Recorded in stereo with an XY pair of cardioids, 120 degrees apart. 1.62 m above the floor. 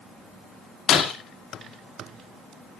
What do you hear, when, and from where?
0.9 s breaking glass: 50° left, 2.5 m